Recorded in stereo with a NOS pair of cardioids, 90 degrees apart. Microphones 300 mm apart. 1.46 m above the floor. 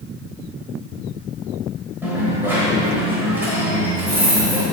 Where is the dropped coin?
5° right, 3 m.